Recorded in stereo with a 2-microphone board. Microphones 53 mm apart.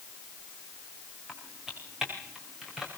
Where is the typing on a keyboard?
10° right (ahead or behind), 6.5 m.